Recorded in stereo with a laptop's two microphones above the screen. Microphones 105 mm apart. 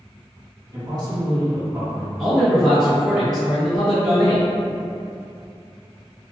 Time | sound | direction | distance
0.7 | a man speaking | 35° right (ahead or behind) | 1.5 m
2.2 | a man speaking | 10° right (ahead or behind) | 1.0 m